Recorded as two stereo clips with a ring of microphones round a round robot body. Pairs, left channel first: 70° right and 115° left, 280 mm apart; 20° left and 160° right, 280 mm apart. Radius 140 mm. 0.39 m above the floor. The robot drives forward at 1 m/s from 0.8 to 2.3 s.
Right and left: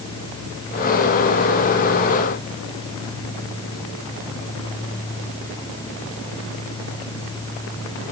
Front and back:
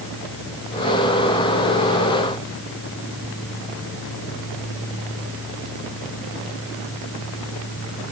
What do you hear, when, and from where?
Only background noise.